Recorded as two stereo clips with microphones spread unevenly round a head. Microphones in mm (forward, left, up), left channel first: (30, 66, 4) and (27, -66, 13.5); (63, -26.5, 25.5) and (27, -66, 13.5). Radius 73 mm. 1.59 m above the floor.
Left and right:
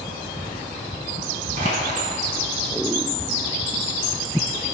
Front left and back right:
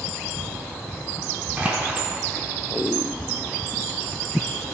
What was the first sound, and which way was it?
Crushing, 65° right.